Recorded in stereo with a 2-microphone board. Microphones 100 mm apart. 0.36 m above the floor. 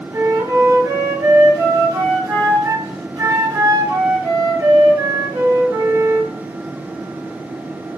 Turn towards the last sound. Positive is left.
turn(degrees=-45)  # may be behind; listen again after turning